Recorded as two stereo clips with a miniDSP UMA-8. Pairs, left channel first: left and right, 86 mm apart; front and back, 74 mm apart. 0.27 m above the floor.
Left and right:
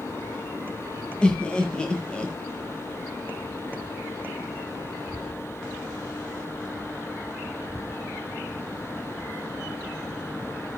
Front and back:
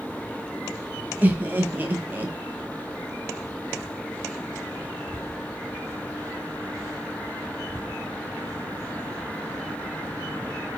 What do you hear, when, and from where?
1.2 s laughter: 155° left, 1.0 m